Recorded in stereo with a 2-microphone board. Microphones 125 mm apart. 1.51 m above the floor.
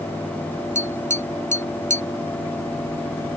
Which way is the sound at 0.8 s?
75° right (ahead or behind).